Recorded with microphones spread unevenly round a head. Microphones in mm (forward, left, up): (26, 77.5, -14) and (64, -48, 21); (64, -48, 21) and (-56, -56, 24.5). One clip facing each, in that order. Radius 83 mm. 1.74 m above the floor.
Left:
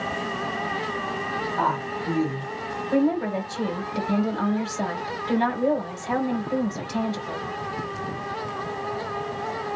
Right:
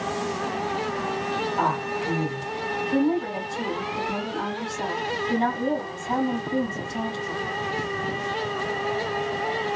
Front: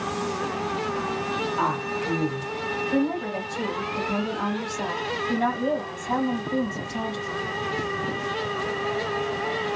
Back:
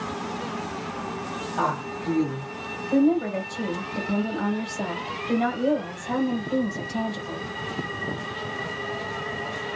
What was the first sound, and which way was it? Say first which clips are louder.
A woman speaking: left 2 dB, back 3 dB; 155° right.